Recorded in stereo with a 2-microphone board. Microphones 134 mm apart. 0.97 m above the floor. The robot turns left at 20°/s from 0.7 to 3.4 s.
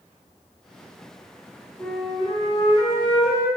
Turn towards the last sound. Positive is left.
turn(degrees=130)